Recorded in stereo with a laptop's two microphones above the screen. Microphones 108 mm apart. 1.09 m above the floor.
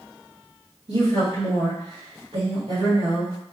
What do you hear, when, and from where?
0.9 s a woman speaking: 70° right (ahead or behind), 1.7 m